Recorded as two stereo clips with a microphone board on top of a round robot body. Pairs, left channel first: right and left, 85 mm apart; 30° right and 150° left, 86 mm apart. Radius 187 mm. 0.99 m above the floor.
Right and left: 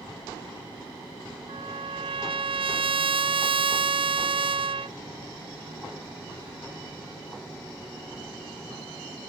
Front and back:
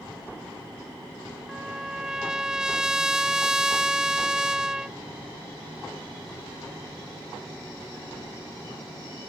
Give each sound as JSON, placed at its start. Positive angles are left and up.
{"t": 1.5, "sound": "a trumpet", "azimuth_deg": 65}